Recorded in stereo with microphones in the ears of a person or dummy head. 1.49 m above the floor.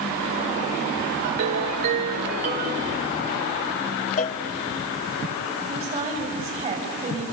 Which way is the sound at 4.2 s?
45° left (ahead or behind).